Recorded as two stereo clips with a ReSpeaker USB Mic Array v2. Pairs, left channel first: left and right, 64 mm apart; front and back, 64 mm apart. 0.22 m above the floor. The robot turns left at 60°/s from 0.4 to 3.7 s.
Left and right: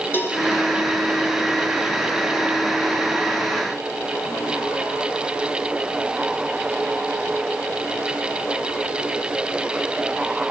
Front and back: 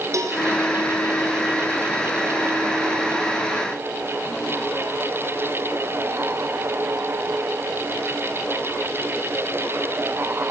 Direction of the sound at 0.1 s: 145° left.